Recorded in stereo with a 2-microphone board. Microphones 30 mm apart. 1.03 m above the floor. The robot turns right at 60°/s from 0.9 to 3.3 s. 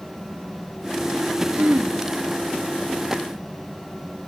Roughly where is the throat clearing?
Right.